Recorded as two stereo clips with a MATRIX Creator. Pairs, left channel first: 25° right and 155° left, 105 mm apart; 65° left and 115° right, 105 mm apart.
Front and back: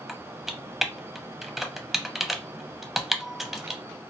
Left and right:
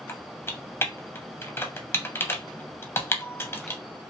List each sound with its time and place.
0.1 s typing on a keyboard: 75° left, 0.5 m